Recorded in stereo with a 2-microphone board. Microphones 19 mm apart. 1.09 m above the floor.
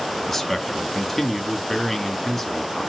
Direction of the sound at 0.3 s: 10° left (ahead or behind).